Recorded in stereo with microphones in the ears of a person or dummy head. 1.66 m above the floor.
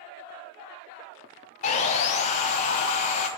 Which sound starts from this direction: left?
Sawing, at 1.6 s.